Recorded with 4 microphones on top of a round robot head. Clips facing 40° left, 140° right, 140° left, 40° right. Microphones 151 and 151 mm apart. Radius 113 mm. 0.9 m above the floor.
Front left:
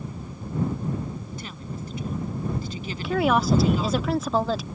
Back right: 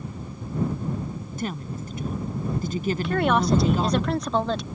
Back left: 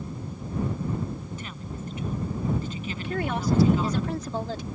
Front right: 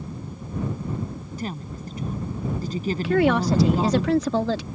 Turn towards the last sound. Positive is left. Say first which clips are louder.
# front left 2 dB, front right 7 dB
turn(degrees=-45)